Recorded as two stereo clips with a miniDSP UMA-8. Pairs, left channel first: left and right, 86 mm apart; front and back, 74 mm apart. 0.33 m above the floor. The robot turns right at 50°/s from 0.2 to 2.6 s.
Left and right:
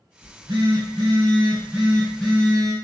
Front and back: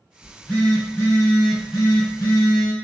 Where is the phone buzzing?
90° right, 1.8 m; by 2.7 s 30° left, 1.8 m.